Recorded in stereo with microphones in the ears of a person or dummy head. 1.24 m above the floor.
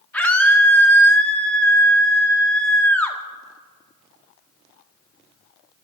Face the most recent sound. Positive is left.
turn(degrees=10)  # may be behind; listen again after turning